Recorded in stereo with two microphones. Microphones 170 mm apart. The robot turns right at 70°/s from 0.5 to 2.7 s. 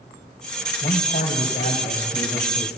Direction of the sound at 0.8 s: 40° left.